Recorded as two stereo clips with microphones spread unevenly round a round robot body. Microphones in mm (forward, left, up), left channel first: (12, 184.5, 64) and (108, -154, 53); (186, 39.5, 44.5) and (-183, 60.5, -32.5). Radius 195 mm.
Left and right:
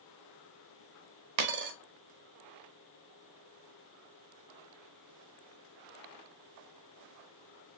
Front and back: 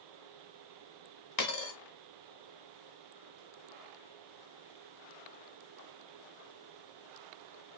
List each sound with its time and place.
1.4 s a dropped coin: 55° right, 0.9 m